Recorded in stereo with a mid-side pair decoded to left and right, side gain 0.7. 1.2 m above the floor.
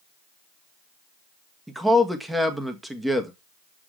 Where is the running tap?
I don't hear a running tap.